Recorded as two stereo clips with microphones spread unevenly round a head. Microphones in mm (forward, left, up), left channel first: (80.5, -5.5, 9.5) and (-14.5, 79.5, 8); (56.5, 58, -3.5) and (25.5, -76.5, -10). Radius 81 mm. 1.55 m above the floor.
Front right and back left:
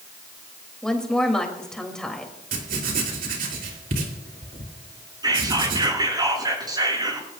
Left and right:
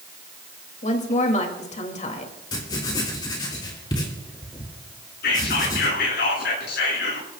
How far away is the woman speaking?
About 3 m.